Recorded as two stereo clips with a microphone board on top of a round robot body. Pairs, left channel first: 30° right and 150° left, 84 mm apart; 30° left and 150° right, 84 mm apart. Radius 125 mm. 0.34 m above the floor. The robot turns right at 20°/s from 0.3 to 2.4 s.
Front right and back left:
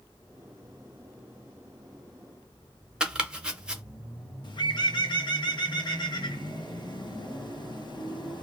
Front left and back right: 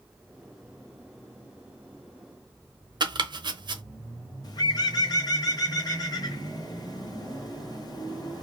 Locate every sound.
3.0 s chopping: 130° right, 0.8 m
4.4 s a bird: 5° right, 1.0 m